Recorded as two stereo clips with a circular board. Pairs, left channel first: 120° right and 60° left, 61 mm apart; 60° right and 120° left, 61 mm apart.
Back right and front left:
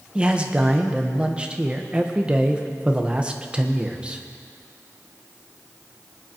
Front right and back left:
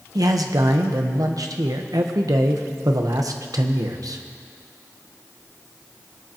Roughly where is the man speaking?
Behind left.